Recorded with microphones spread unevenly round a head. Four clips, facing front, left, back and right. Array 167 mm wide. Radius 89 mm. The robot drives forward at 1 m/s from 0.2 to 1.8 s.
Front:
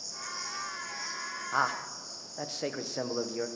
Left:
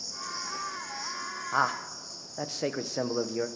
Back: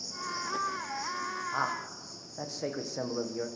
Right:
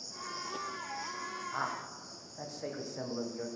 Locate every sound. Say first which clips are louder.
0.0 s an insect: left 3 dB, back 5 dB; 150° left, 1.1 m; by 3.6 s 170° left, 2.5 m
1.5 s a man speaking: left 11 dB, front 6 dB; 70° left, 1.4 m; by 3.5 s 85° left, 1.3 m